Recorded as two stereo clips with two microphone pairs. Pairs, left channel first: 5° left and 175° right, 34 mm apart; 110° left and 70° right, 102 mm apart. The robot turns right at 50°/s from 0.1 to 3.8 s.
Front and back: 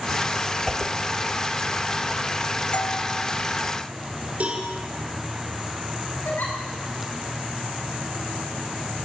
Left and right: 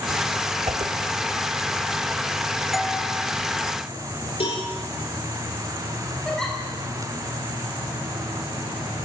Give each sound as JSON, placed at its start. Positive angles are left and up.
{"t": 0.7, "sound": "a whoosh", "azimuth_deg": -100, "distance_m": 1.7}
{"t": 2.7, "sound": "a doorbell", "azimuth_deg": 20, "distance_m": 1.6}
{"t": 4.4, "sound": "a cowbell", "azimuth_deg": 135, "distance_m": 9.0}
{"t": 6.2, "sound": "a giggle", "azimuth_deg": 25, "distance_m": 6.0}